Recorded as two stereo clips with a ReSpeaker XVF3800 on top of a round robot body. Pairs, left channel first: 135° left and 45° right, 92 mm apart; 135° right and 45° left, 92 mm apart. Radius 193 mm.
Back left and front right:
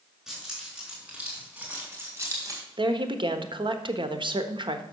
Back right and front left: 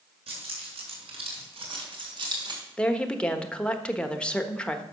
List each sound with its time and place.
0.3 s keys jangling: 45° left, 5.5 m; by 2.6 s 5° left, 3 m
2.8 s a woman speaking: 55° right, 1.4 m